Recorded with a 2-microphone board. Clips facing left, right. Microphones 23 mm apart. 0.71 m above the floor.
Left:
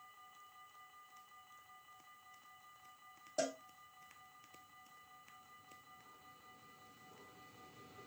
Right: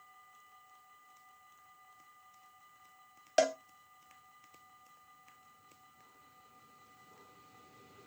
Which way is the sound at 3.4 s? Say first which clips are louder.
Right 10 dB; 90° right.